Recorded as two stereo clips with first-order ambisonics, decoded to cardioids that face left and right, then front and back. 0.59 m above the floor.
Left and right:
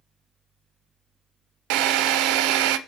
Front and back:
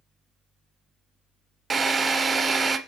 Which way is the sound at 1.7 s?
110° right.